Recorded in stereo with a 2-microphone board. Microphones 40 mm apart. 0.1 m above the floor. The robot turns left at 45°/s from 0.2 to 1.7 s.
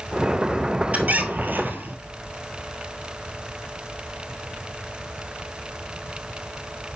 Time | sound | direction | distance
0.9 | a squeak | 50° right | 1.1 m